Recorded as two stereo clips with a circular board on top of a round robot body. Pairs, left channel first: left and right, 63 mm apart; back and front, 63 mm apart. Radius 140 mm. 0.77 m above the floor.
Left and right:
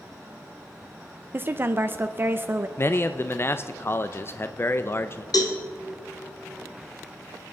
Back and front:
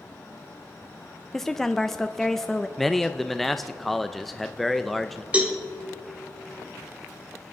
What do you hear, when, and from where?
1.3 s a woman speaking: 100° right, 0.6 m
2.8 s a man speaking: 95° left, 0.6 m
5.3 s a cowbell: 70° left, 1.3 m